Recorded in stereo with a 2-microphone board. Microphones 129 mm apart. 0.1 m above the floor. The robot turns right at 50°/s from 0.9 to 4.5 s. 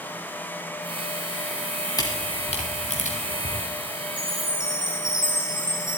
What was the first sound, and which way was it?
A camera shutter, 30° left (ahead or behind).